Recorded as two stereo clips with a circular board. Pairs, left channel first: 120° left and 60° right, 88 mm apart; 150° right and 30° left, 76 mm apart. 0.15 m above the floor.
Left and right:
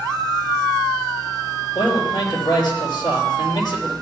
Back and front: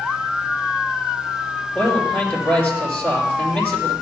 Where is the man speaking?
145° left, 4 m.